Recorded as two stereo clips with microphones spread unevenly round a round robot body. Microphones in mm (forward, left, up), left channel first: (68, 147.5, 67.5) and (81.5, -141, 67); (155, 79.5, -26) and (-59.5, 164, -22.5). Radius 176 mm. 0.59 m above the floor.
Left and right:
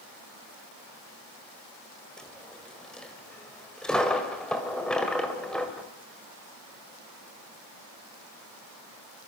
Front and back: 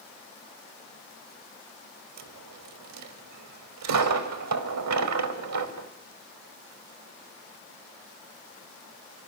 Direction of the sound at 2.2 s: Straight behind.